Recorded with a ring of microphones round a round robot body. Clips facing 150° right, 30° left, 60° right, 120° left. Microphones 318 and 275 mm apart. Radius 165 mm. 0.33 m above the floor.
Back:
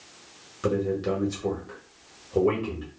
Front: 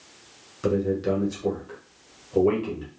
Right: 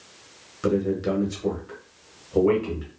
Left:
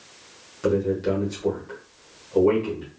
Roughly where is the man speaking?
Ahead right.